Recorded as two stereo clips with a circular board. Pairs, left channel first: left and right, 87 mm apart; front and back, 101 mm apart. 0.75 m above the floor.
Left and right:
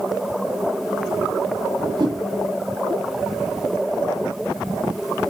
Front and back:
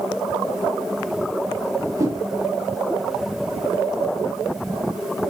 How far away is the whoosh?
About 2 m.